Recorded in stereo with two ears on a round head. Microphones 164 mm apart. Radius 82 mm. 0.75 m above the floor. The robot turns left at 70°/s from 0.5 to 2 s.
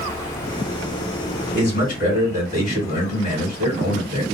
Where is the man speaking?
90° left, 1.6 m; by 4.2 s 60° left, 1.6 m.